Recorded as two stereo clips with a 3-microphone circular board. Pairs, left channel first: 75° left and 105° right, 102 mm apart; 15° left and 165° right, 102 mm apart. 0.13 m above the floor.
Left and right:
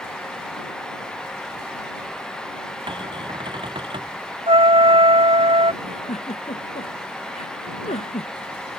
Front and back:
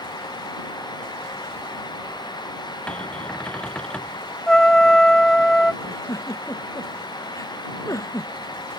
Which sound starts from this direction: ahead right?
A cupboard door, at 2.9 s.